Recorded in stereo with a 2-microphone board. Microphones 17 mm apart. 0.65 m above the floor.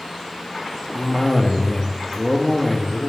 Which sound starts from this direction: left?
A cough, at 0.9 s.